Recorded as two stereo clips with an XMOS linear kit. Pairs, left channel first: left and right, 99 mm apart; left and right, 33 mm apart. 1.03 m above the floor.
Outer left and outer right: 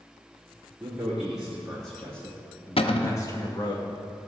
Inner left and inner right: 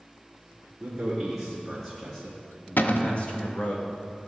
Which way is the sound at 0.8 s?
10° right (ahead or behind).